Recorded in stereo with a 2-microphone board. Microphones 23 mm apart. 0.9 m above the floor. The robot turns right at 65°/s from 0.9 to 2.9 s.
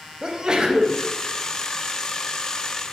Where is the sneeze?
30° right (ahead or behind), 0.5 m; by 1.0 s 35° right (ahead or behind), 0.5 m.